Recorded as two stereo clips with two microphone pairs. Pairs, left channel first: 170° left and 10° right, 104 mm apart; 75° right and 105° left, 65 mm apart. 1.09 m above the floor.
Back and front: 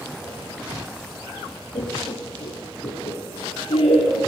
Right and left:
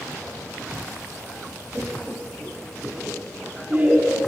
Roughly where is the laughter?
Behind.